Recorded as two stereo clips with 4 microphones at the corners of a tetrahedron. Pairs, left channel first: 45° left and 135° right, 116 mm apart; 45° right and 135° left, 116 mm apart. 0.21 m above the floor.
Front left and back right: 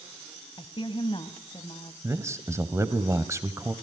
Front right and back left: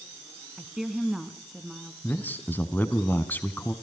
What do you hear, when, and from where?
0.6 s a woman speaking: 50° left, 1.3 m
2.0 s a man speaking: 100° right, 1.1 m